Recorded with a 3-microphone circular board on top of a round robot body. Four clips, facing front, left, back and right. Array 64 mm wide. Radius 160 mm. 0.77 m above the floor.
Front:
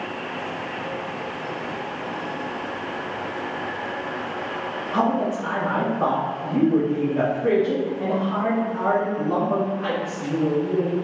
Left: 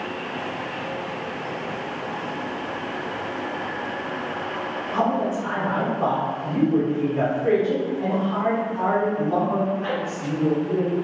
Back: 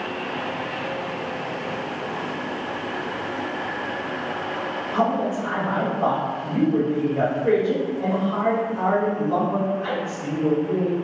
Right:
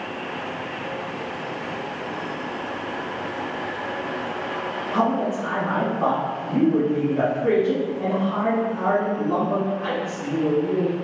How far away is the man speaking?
About 1.6 m.